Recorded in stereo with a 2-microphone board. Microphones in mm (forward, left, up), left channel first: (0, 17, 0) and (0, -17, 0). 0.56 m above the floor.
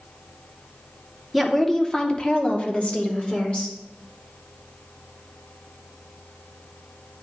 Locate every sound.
1.3 s a woman speaking: 5° left (ahead or behind), 1.0 m; by 3.8 s 35° left (ahead or behind), 1.9 m